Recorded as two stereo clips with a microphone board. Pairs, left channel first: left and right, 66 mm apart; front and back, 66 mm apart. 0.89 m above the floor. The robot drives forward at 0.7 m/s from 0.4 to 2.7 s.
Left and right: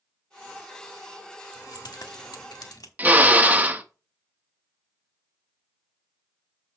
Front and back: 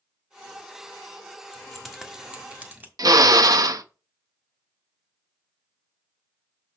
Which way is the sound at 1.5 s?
80° left.